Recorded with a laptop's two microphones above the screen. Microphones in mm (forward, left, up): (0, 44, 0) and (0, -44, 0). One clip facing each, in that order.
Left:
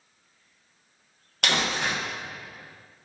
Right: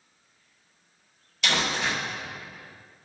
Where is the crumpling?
60° left (ahead or behind), 1.4 m.